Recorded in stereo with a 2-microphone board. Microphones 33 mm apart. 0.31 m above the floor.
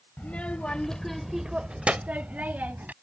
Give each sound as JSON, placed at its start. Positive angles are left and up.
{"t": 0.2, "sound": "a child speaking", "side_deg": 50}